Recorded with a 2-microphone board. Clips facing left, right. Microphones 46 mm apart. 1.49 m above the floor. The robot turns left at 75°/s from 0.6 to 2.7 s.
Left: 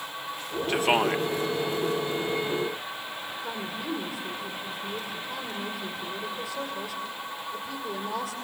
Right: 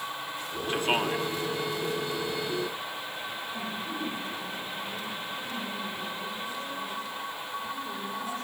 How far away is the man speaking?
About 1.3 m.